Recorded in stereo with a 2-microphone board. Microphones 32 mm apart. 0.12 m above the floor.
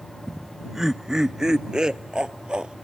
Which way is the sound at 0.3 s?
Centre (ahead or behind).